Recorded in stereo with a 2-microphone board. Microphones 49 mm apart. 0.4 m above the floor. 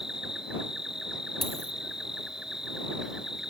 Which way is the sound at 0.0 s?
10° right (ahead or behind).